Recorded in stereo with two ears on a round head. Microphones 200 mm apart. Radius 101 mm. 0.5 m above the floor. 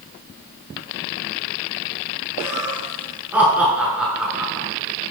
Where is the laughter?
10° right (ahead or behind), 7.5 m; by 4.7 s centre (ahead or behind), 6.5 m.